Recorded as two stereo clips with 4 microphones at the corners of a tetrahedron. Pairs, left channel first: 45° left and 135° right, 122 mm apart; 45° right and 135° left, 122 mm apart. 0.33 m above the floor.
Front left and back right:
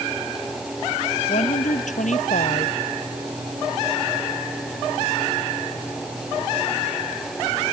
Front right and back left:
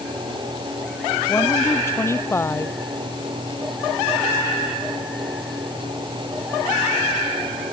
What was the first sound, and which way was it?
A woman speaking, 25° left.